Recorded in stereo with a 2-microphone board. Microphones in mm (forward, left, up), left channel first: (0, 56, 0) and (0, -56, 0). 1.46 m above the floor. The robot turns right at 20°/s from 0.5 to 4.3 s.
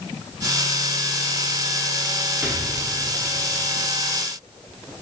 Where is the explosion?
15° right (ahead or behind), 1.8 m; by 3.7 s 40° right (ahead or behind), 1.8 m.